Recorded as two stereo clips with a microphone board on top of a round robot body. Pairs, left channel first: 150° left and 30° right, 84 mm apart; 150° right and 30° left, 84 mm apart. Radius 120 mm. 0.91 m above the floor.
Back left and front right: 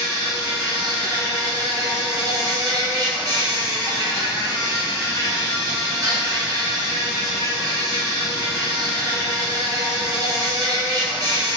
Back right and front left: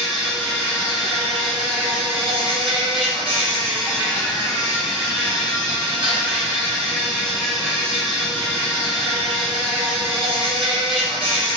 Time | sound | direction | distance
0.0 | an insect | 15° left | 1.8 m